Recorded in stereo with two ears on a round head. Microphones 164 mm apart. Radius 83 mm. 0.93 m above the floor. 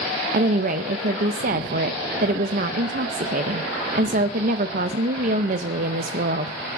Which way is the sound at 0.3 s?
45° right (ahead or behind).